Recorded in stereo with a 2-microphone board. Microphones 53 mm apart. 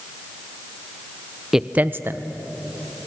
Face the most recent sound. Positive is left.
turn(degrees=-70)  # may be behind; listen again after turning